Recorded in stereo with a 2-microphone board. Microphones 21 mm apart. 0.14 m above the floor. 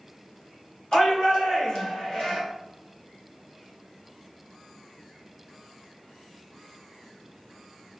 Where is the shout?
40° left (ahead or behind), 1.9 m.